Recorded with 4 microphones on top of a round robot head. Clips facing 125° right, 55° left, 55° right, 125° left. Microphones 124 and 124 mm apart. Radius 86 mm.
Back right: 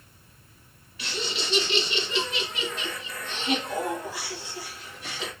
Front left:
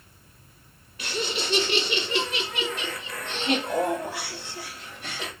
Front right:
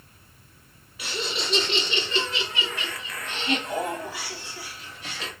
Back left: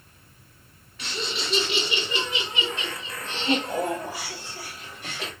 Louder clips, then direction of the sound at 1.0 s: Front left 3 dB, front right 1 dB; 30° left.